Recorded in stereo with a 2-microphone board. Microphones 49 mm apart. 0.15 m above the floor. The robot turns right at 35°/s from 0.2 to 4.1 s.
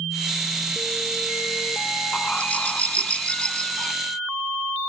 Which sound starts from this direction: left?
A bird, at 2.1 s.